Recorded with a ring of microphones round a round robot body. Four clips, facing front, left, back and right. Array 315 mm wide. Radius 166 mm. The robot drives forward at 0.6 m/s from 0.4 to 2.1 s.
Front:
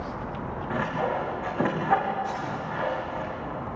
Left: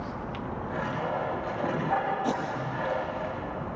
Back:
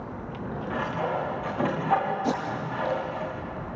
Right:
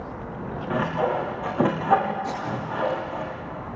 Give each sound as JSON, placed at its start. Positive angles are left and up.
{"t": 0.7, "sound": "sawing", "azimuth_deg": -70, "distance_m": 5.5}
{"t": 2.2, "sound": "tape being pulled", "azimuth_deg": 160, "distance_m": 6.5}